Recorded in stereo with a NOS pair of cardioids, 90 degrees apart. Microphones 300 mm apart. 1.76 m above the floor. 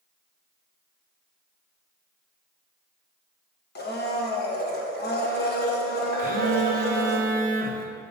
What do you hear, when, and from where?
3.8 s a blender: 35° left, 1.5 m
6.2 s a phone buzzing: 30° right, 1.1 m